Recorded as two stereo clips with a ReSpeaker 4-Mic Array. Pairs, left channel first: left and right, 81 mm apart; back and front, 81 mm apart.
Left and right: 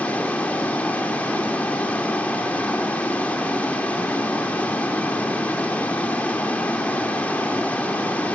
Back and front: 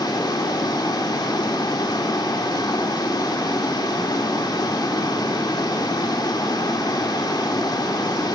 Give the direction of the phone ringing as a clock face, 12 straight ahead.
I don't hear a phone ringing.